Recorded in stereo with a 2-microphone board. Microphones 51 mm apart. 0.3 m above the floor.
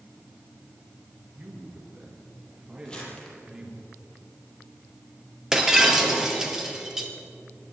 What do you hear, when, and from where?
1.4 s a man speaking: 40° right (ahead or behind), 5.5 m; by 3.9 s 20° right (ahead or behind), 7 m
2.9 s crumpling: 20° left (ahead or behind), 5.5 m
5.5 s breaking glass: 10° right (ahead or behind), 2.5 m